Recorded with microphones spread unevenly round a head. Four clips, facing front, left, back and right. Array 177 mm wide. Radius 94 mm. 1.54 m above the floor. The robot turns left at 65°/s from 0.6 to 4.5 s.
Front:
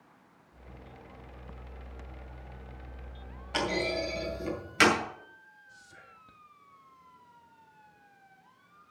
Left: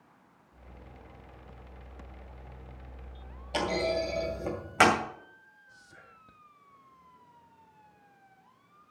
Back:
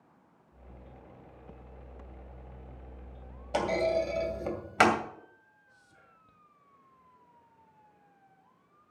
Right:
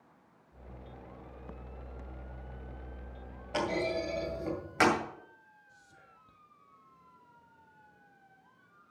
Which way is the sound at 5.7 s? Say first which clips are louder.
Left 4 dB, front 6 dB; 45° left.